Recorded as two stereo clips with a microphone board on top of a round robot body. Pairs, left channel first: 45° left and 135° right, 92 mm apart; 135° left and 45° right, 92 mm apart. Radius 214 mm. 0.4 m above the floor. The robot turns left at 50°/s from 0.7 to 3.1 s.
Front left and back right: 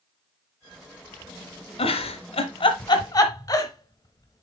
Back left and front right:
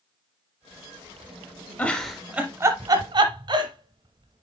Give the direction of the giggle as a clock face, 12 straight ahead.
10 o'clock.